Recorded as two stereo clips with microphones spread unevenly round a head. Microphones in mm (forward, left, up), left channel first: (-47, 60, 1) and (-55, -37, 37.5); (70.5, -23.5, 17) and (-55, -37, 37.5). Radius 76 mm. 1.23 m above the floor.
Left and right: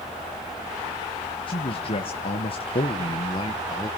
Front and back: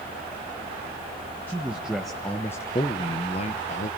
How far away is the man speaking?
About 1.2 m.